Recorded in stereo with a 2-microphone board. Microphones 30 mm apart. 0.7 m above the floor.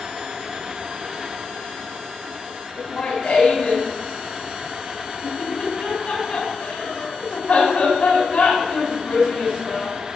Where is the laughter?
35° left (ahead or behind), 6.5 m.